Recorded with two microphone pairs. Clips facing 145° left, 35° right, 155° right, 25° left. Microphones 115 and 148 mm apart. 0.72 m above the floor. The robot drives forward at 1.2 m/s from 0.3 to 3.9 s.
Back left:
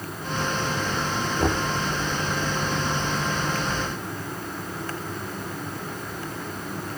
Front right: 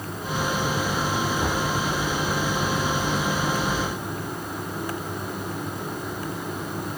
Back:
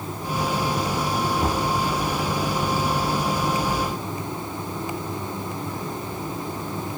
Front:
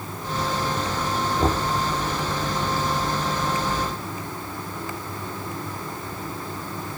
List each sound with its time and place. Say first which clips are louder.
1.4 s knocking: back left 1 dB, front 1 dB; 80° left; by 1.7 s 95° left